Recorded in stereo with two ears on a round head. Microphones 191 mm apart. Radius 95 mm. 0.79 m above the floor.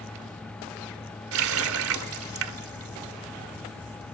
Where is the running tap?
80° right, 1.6 m.